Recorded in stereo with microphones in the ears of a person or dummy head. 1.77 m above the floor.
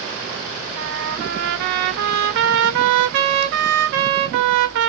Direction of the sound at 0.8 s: 65° right (ahead or behind).